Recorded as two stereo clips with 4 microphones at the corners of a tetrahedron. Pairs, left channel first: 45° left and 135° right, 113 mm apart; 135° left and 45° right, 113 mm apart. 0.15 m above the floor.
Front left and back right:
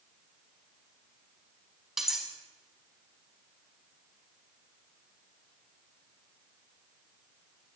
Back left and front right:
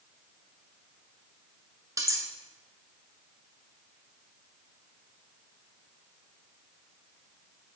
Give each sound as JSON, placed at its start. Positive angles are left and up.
{"t": 2.0, "sound": "cutlery clinking", "azimuth_deg": -50, "distance_m": 0.7}